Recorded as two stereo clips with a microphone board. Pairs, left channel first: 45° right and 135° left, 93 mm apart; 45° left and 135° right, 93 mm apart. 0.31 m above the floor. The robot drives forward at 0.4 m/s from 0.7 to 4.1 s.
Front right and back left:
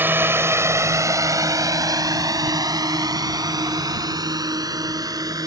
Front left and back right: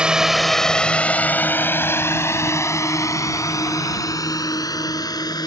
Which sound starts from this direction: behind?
A drone, at 0.0 s.